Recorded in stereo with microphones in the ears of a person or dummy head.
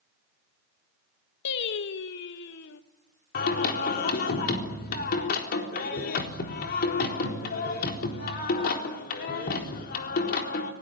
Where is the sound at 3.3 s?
50° left (ahead or behind), 4 m.